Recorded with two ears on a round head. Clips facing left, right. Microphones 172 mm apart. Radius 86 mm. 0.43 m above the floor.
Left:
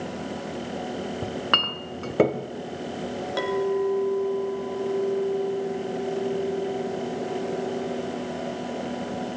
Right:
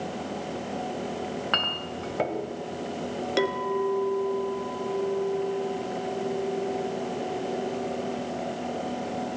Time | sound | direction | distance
1.2 | a clink | 60° left (ahead or behind) | 1.5 m
3.4 | a clink | 30° right (ahead or behind) | 3 m